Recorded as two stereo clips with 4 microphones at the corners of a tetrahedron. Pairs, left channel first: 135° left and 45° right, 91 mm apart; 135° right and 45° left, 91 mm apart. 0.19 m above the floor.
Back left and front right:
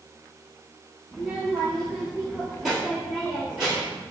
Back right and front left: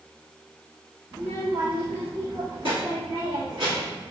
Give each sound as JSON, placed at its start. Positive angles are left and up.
{"t": 1.1, "sound": "a child speaking", "azimuth_deg": 50, "distance_m": 1.6}